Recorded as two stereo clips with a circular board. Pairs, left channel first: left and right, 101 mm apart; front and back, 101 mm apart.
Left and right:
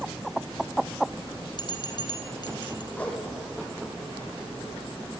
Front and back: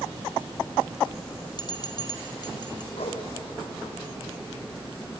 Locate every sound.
1.6 s a bell: 45° left, 1.4 m
2.9 s a whoosh: 15° left, 5 m